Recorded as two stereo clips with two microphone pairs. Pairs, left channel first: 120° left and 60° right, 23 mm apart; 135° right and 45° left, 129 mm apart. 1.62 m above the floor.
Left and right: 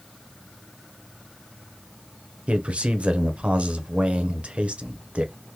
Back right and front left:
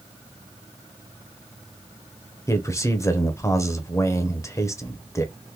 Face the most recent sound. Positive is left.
turn(degrees=-75)